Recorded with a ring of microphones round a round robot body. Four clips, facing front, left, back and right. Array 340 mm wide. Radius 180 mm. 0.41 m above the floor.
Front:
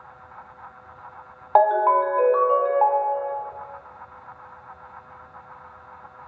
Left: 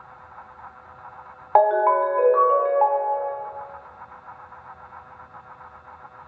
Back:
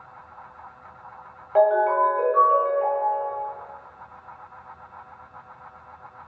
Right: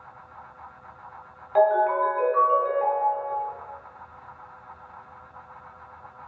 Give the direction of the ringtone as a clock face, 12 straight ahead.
10 o'clock.